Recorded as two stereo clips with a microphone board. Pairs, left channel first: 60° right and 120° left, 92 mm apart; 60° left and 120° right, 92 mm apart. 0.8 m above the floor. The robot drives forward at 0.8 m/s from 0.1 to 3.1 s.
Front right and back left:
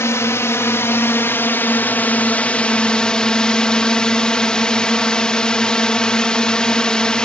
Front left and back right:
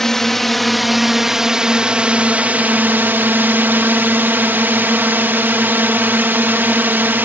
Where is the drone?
25° right; by 7.2 s 125° right.